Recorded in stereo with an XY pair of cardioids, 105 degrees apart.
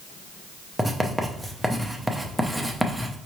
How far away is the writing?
About 0.7 m.